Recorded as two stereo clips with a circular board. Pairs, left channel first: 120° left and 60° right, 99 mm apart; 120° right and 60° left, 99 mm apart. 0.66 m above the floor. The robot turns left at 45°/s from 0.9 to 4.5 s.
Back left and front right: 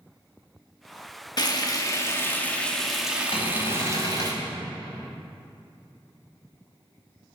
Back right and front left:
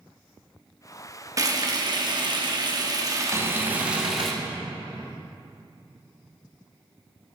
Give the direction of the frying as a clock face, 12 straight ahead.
9 o'clock.